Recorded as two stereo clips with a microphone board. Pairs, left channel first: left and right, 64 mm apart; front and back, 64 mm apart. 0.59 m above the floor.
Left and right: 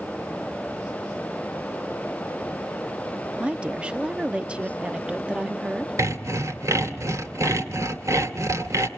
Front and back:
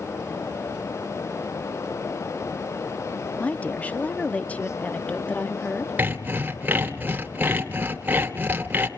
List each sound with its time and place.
3.4 s a woman speaking: 40° right, 0.6 m
6.0 s sawing: 120° right, 1.8 m